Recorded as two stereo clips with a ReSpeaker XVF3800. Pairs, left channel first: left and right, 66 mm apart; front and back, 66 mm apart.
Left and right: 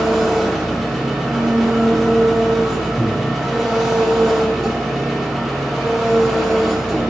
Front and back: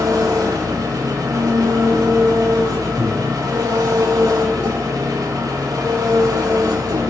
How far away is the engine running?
About 3 m.